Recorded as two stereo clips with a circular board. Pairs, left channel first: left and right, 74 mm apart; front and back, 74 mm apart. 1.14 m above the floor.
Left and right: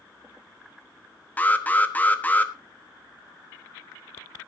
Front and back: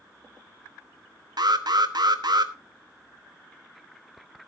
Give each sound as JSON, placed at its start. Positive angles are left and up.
{"t": 1.4, "sound": "an alarm", "azimuth_deg": 160, "distance_m": 1.1}